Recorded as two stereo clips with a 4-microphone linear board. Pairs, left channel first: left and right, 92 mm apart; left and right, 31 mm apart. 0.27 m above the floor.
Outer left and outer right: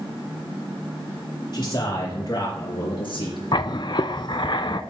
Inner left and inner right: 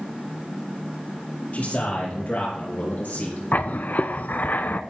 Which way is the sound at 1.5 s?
50° left (ahead or behind).